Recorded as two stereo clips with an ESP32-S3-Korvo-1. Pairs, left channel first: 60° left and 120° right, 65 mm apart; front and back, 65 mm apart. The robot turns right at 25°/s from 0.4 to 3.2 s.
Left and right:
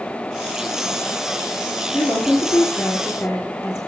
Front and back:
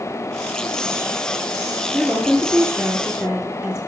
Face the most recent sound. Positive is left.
turn(degrees=120)